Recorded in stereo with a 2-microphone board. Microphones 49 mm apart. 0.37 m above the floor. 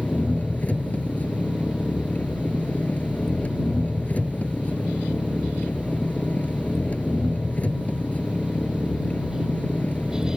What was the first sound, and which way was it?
An engine running, 30° left (ahead or behind).